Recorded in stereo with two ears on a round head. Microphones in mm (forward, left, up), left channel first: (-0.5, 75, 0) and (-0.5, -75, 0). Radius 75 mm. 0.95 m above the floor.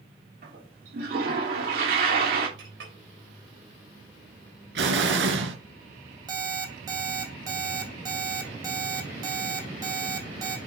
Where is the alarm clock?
25° right (ahead or behind), 2 m.